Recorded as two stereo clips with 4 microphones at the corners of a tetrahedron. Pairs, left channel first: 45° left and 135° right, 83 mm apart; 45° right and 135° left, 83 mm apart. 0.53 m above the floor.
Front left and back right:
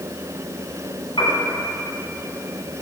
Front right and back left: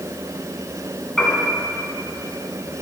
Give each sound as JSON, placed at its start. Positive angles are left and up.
{"t": 1.2, "sound": "a piano", "azimuth_deg": 40, "distance_m": 2.5}